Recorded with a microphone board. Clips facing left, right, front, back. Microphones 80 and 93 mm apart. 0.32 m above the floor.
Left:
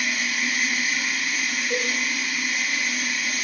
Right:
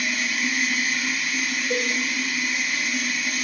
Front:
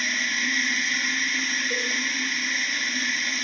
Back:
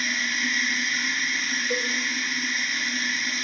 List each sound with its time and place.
0.0 s running water: 95° left, 1.6 m
1.7 s a cowbell: 150° right, 0.5 m